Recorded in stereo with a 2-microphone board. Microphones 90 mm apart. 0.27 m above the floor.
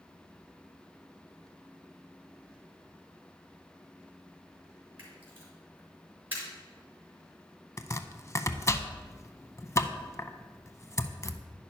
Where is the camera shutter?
25° right (ahead or behind), 4 m.